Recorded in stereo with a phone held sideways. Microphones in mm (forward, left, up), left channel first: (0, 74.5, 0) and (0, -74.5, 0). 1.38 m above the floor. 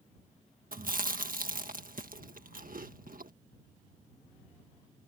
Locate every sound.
0.7 s chewing: 70° right (ahead or behind)